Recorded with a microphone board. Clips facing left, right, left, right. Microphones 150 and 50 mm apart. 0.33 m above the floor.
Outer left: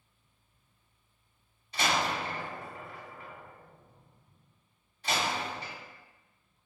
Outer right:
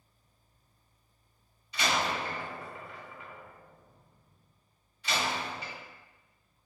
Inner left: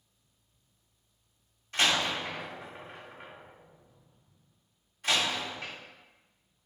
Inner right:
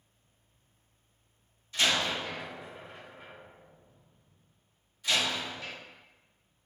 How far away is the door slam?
About 1.3 m.